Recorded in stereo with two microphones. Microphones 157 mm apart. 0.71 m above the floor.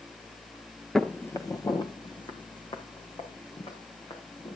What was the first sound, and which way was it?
Footsteps, centre (ahead or behind).